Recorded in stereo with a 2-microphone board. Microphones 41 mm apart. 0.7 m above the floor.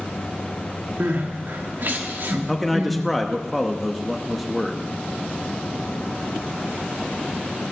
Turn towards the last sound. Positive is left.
turn(degrees=0)  # may be behind; listen again after turning